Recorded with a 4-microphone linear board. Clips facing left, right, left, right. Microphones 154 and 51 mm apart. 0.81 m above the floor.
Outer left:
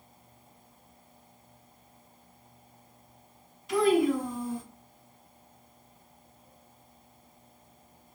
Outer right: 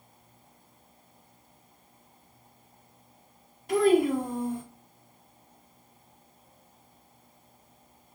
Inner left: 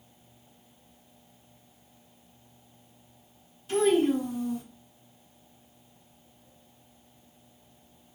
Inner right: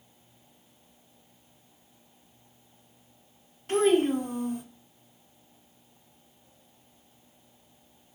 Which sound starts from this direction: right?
A child speaking, at 3.7 s.